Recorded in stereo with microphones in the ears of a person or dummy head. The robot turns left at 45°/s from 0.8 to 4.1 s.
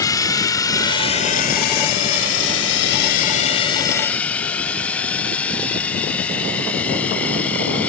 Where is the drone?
20° left (ahead or behind); by 7.9 s 10° left (ahead or behind).